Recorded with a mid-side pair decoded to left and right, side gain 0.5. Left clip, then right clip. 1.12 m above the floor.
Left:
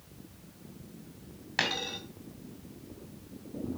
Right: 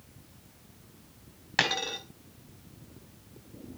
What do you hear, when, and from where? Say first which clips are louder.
1.6 s a dropped coin: right 3 dB; 35° right, 2.5 m